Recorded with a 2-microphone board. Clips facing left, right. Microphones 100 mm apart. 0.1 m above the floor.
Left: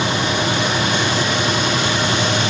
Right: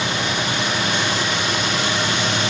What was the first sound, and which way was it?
Only background noise.